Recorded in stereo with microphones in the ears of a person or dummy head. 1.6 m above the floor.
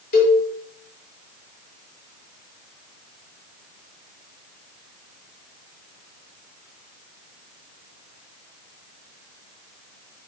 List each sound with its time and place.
0.1 s a cowbell: 50° left (ahead or behind), 1.2 m